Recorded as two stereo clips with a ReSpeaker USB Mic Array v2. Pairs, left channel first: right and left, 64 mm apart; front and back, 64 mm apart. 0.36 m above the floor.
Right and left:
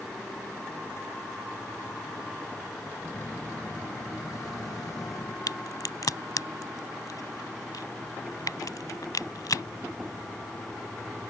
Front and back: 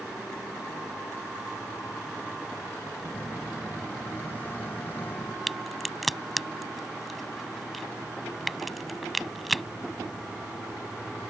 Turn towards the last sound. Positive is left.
turn(degrees=-90)